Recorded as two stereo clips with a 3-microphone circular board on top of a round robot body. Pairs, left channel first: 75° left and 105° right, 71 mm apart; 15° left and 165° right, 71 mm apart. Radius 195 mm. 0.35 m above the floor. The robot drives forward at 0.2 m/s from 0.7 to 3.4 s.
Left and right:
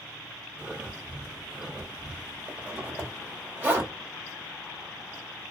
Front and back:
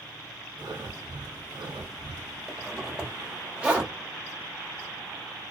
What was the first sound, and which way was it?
Breathing, straight behind.